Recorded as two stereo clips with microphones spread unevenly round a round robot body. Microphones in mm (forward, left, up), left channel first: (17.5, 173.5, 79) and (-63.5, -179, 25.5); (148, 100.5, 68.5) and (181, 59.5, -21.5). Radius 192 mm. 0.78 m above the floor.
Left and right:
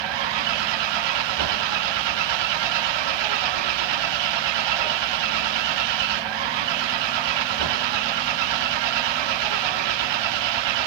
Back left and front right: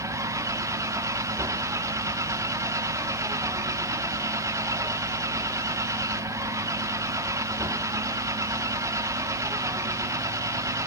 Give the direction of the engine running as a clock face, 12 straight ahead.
3 o'clock.